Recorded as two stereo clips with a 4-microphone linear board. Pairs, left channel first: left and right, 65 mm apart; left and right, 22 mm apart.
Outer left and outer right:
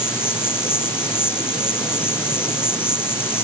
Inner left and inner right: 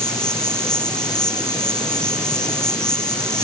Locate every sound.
0.0 s an insect: 35° left (ahead or behind)